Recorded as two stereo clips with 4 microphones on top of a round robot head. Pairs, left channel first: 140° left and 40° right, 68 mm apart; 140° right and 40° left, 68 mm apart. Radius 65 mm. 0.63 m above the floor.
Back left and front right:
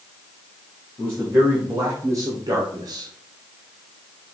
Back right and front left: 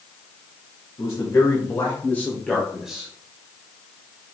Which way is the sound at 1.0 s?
100° right.